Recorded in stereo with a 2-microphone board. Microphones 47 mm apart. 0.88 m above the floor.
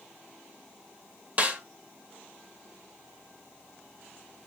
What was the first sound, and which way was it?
A snare drum, 35° right (ahead or behind).